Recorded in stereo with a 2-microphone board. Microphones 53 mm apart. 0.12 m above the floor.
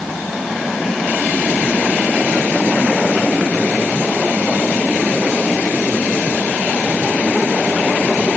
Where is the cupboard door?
I don't hear a cupboard door.